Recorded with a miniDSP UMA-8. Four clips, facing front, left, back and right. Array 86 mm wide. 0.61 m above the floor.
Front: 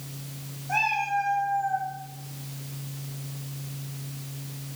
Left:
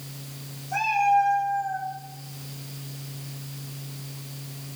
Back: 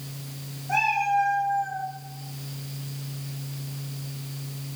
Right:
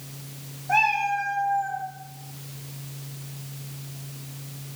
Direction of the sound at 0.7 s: 100° right.